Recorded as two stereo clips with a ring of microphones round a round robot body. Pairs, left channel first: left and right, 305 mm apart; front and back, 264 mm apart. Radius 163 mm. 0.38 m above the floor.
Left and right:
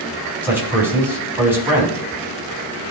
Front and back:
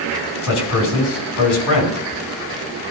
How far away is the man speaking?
About 4 m.